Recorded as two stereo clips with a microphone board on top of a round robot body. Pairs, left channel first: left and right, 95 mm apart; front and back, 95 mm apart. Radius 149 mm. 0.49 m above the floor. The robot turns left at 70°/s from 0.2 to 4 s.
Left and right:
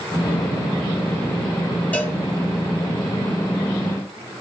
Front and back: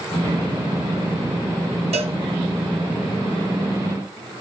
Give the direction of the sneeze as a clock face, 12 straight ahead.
No sneeze in this recording.